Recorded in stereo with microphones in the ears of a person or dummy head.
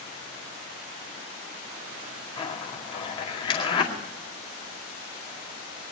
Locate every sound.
2.4 s a zipper: 40° left (ahead or behind), 2 m